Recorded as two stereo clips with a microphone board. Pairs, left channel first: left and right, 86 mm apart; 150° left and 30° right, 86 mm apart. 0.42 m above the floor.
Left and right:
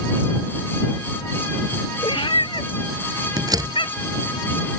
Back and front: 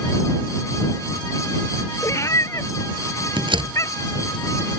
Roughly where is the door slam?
Ahead right.